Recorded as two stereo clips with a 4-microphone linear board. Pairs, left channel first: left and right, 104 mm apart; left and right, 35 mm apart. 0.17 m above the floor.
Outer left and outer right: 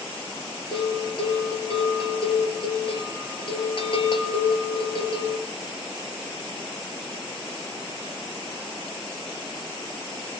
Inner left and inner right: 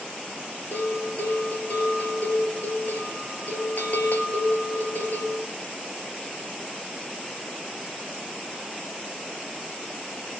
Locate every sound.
0.7 s a bell: 55° left (ahead or behind), 3 m